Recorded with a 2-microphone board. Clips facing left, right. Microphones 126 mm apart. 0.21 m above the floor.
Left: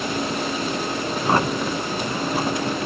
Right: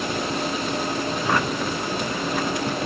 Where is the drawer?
35° left (ahead or behind).